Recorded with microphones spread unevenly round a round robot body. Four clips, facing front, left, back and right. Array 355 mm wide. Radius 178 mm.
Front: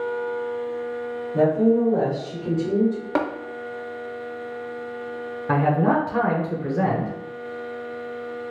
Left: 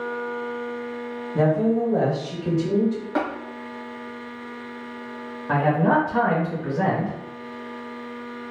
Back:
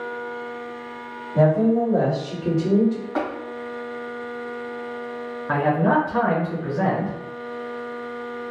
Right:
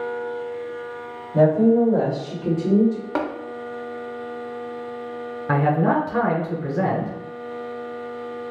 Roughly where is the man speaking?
Ahead right.